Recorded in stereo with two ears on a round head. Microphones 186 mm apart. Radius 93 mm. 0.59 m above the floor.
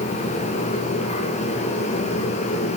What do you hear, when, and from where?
Only background noise.